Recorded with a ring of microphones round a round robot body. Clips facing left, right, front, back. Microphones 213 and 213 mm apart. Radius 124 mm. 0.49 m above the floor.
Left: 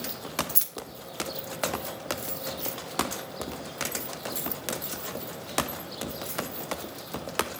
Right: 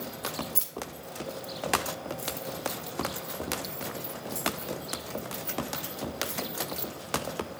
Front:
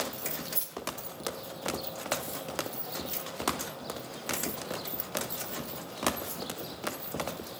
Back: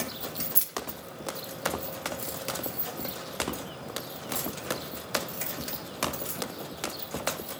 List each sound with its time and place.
0.6 s keys jangling: 140° left, 0.6 m; by 6.4 s straight behind, 4.5 m